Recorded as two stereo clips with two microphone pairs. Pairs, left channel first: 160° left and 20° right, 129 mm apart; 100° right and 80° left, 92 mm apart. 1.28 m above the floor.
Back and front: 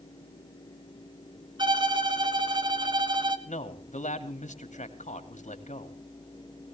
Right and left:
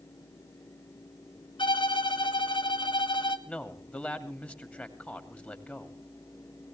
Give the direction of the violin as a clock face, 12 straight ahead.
2 o'clock.